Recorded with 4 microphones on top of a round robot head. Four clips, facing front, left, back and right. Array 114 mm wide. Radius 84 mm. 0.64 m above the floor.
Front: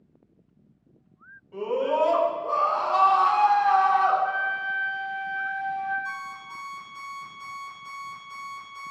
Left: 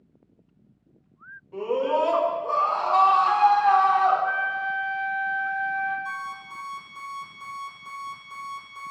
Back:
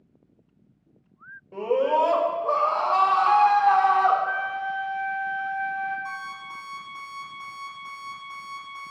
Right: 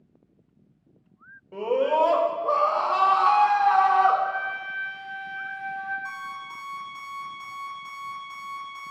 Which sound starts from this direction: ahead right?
A flute, at 4.2 s.